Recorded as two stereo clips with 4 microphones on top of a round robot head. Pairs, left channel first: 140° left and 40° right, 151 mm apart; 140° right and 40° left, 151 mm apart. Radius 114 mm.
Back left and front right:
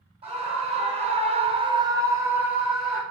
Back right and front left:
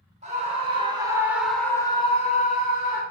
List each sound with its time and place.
0.2 s a scream: 5° left, 1.7 m; by 3.0 s 130° right, 1.7 m